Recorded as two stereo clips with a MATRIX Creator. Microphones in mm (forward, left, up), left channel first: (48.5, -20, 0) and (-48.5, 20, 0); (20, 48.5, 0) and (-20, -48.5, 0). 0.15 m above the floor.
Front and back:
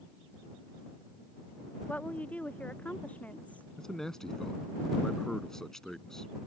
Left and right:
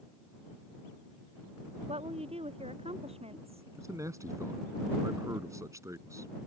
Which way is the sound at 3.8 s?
105° right.